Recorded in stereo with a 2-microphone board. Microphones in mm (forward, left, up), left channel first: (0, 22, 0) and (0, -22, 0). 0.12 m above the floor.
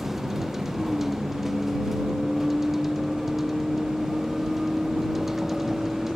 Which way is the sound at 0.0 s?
10° right (ahead or behind).